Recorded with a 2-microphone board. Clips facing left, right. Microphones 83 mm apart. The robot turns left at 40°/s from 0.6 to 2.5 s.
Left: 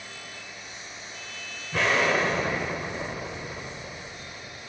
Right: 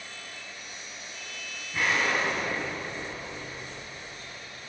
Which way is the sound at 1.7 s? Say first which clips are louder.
Left 4 dB; 95° left.